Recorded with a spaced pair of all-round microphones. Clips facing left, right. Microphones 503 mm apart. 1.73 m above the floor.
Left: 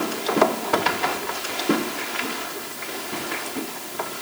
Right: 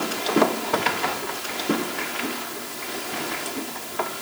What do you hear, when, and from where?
Only background noise.